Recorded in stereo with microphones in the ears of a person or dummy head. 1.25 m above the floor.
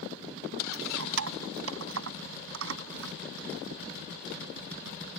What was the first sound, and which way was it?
Keys jangling, 75° right (ahead or behind).